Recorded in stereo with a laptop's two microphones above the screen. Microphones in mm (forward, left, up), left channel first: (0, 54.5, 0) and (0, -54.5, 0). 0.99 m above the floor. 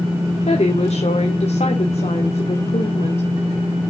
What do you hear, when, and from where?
0.4 s a woman speaking: 85° left, 2.5 m